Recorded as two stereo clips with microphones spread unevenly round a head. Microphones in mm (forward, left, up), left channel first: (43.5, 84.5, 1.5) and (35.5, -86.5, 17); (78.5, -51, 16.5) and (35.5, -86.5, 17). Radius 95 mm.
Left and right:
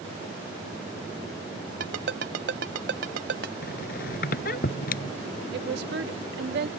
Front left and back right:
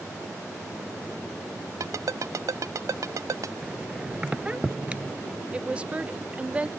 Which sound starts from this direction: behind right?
A ringtone, at 1.8 s.